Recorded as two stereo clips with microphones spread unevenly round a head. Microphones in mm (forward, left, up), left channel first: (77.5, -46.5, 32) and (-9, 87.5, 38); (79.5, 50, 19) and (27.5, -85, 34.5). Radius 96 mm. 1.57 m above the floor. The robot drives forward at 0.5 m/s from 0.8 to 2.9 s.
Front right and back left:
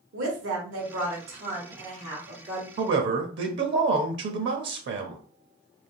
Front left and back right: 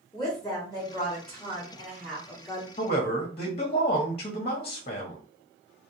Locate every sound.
0.1 s a woman speaking: 145° left, 1.1 m; by 2.7 s 160° left, 1.9 m
2.8 s a man speaking: 120° left, 0.6 m; by 5.2 s 125° left, 0.7 m